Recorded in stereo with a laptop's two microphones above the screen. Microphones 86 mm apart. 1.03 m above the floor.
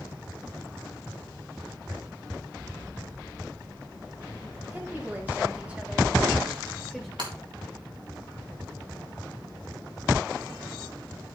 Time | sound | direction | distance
4.7 | a woman speaking | 25° right (ahead or behind) | 3 m
7.2 | breaking glass | 65° right (ahead or behind) | 3.5 m